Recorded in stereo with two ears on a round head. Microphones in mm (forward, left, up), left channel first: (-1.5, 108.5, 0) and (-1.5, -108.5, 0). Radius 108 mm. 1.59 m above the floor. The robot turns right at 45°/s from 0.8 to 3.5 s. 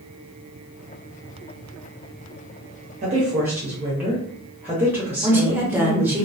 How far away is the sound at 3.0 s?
About 0.9 m.